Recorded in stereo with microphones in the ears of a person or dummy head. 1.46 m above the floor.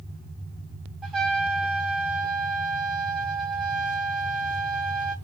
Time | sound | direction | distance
1.0 | a trumpet | centre (ahead or behind) | 0.8 m